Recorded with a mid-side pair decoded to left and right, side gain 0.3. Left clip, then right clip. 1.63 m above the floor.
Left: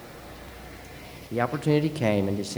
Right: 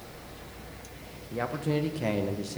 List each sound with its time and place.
1.3 s a man speaking: 60° left, 0.5 m